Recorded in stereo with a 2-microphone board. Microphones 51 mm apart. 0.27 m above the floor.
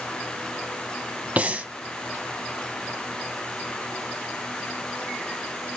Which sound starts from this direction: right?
Breathing, at 1.4 s.